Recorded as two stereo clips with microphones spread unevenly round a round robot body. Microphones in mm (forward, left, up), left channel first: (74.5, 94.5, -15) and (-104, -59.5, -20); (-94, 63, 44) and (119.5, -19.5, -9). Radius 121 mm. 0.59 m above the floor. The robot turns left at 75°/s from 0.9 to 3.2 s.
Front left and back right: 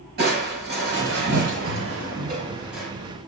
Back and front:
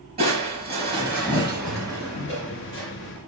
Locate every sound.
0.2 s crushing: 90° right, 5.5 m; by 2.9 s 120° left, 5.5 m